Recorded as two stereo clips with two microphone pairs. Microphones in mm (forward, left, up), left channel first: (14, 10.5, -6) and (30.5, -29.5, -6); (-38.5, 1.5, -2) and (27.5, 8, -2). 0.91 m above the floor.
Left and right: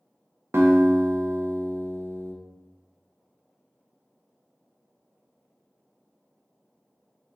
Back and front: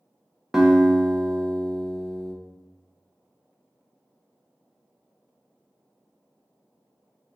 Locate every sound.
0.5 s a guitar: 80° right, 0.5 m